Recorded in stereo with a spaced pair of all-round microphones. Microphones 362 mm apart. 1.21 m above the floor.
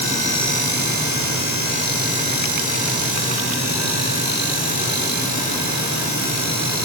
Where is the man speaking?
I don't hear a man speaking.